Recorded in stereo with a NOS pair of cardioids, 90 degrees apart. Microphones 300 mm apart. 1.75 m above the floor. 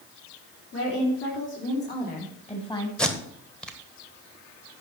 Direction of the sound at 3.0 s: 5° left.